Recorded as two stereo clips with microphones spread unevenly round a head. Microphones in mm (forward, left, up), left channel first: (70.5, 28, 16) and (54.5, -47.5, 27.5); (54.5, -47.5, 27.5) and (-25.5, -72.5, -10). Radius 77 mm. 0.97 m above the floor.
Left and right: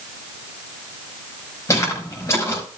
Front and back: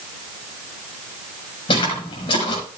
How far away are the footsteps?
About 5 m.